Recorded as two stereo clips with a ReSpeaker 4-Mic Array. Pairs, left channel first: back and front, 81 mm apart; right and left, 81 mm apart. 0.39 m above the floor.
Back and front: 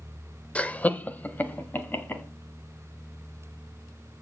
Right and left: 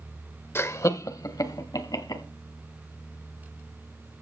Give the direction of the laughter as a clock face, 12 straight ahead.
4 o'clock.